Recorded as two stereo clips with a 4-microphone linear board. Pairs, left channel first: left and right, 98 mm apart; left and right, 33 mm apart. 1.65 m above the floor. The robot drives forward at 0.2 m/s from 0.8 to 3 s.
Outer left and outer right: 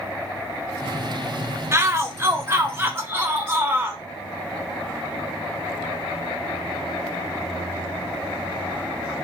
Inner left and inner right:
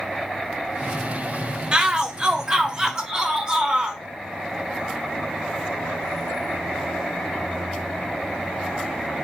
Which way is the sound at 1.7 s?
25° right (ahead or behind).